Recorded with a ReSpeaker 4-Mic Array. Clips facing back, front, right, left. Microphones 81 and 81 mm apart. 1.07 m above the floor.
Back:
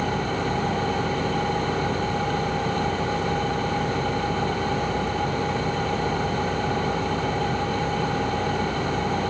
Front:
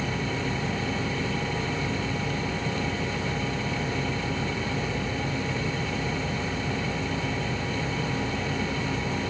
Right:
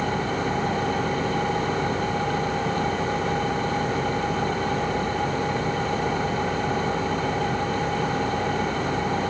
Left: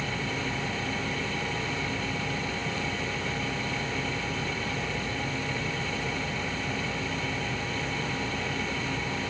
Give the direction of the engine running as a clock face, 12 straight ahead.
5 o'clock.